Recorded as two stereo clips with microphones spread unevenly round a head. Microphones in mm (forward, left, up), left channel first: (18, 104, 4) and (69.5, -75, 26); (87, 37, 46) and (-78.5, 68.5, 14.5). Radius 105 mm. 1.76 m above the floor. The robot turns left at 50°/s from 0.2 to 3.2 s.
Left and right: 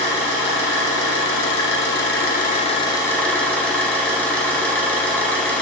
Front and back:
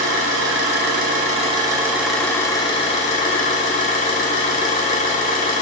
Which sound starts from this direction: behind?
An engine running, at 0.0 s.